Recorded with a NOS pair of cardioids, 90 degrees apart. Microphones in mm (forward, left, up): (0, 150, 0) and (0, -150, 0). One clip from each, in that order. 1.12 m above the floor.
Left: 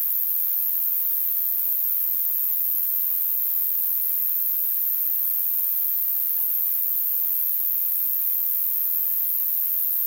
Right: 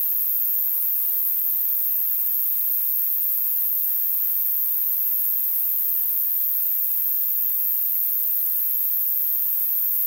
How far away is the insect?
About 2.5 m.